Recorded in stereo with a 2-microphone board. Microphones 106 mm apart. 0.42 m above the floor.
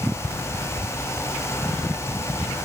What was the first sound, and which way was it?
Only background noise.